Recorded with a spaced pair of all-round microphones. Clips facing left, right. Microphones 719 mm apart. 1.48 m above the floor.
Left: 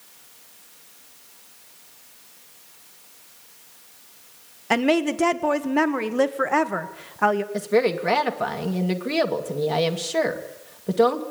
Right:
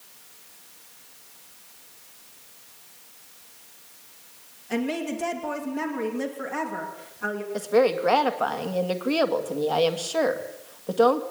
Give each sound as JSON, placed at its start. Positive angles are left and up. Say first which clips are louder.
{"t": 4.7, "sound": "a woman speaking", "louder": "left 6 dB", "side_deg": 85, "distance_m": 1.8}
{"t": 7.5, "sound": "a woman speaking", "louder": "right 3 dB", "side_deg": 50, "distance_m": 2.5}